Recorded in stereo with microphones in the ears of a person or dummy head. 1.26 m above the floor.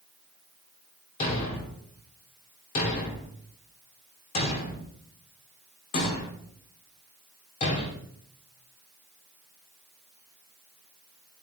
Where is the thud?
35° left (ahead or behind), 1.2 m.